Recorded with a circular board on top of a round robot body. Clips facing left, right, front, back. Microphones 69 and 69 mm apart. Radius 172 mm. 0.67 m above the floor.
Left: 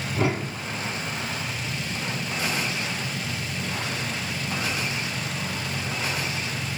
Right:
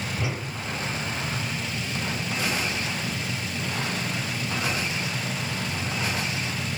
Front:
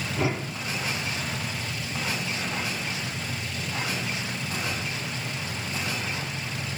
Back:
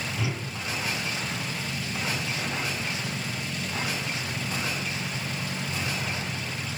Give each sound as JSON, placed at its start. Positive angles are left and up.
{"t": 0.1, "sound": "a whoosh", "azimuth_deg": 50, "distance_m": 1.8}